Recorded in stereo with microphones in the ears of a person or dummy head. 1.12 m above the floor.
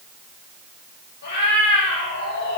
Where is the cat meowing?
65° left (ahead or behind), 9.5 m.